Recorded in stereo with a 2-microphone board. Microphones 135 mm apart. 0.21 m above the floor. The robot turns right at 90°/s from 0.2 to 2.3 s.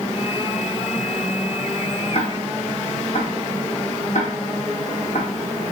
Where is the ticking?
50° left (ahead or behind), 3.5 m; by 5.3 s 65° left (ahead or behind), 3.5 m.